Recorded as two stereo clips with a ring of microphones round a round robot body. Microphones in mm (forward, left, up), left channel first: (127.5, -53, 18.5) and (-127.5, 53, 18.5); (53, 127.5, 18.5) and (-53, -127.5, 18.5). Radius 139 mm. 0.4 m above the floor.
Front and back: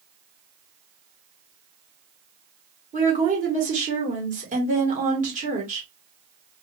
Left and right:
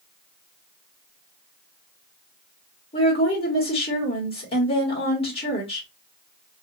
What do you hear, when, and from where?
2.9 s a woman speaking: 120° left, 1.6 m